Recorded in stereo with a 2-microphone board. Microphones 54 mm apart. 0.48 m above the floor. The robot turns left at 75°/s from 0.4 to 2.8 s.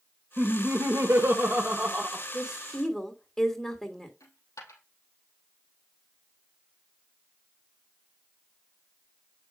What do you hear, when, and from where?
0.4 s laughter: 45° right, 1.1 m; by 2.2 s 175° left, 1.1 m
2.3 s a woman speaking: 160° right, 1.6 m; by 4.1 s 165° left, 1.6 m
4.2 s a dropped coin: 80° left, 3 m